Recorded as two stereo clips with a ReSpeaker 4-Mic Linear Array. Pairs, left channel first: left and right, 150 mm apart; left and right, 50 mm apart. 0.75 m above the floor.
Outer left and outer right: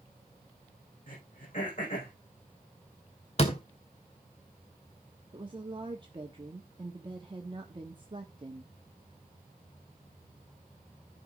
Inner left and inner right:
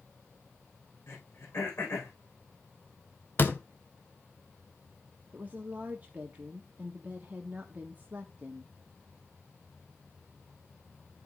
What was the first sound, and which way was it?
Throat clearing, 65° left (ahead or behind).